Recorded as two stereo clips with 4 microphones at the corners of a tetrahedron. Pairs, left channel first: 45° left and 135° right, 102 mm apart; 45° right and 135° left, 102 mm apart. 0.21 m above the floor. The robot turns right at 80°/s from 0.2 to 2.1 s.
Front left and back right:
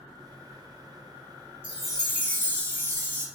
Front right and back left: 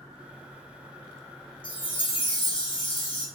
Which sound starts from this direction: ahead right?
A chime, at 1.6 s.